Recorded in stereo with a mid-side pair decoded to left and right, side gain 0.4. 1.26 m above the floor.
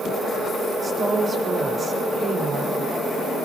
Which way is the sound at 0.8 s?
35° right.